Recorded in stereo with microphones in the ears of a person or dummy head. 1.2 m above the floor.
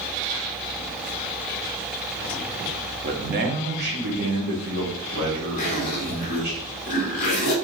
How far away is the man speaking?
About 0.8 m.